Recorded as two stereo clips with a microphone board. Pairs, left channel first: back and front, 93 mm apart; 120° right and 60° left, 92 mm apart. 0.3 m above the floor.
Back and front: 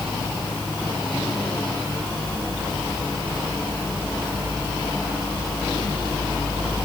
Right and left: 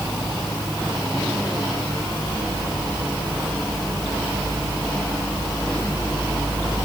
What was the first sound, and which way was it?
Only background noise.